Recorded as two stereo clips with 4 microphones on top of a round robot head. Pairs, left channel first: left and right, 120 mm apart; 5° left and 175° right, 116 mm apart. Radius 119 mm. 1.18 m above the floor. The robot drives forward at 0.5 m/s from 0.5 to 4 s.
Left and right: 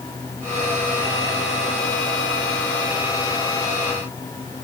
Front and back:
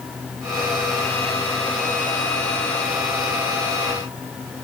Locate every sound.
Only background noise.